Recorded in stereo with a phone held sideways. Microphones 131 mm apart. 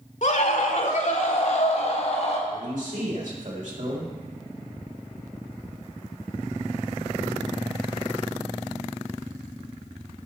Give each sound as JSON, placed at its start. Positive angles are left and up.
{"t": 0.2, "sound": "a scream", "side_deg": 65, "distance_m": 1.8}
{"t": 2.5, "sound": "a man speaking", "side_deg": -75, "distance_m": 4.0}